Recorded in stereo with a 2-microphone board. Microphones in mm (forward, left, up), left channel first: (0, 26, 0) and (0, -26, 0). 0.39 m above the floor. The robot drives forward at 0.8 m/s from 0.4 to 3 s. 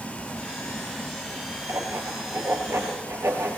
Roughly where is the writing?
Right.